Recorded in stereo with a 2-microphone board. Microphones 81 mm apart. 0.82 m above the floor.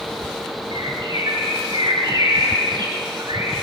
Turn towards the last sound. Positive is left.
turn(degrees=-80)